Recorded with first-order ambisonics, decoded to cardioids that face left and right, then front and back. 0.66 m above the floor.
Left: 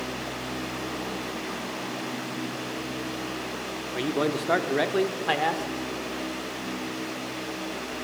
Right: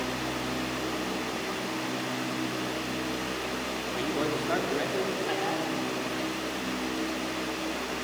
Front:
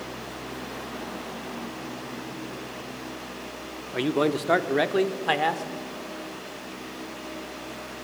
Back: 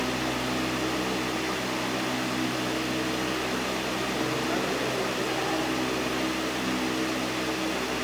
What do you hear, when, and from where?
3.9 s a man speaking: 20° left, 1.1 m; by 5.7 s 40° left, 1.8 m